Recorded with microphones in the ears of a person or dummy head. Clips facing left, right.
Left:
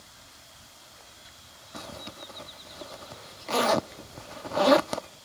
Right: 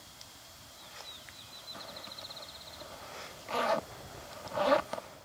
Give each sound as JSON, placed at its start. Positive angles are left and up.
{"t": 1.7, "sound": "a zipper", "side_deg": 60}